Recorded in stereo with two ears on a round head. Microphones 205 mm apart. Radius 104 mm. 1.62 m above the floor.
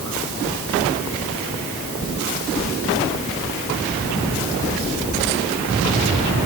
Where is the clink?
I don't hear a clink.